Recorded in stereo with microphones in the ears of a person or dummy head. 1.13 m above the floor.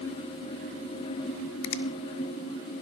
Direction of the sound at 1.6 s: 75° left (ahead or behind).